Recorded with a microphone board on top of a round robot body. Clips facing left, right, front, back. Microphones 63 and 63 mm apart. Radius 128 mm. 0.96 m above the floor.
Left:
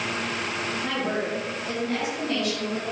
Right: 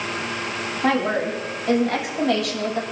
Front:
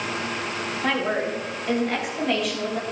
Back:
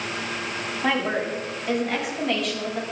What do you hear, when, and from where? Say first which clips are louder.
0.8 s a woman speaking: right 9 dB, even; 95° right, 9 m; by 2.8 s 85° right, 7 m